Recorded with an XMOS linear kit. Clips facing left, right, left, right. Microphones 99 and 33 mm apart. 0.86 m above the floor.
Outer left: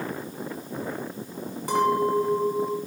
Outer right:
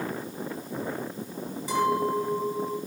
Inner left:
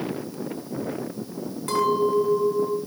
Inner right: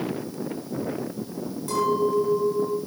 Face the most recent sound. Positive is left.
turn(degrees=55)  # may be behind; listen again after turning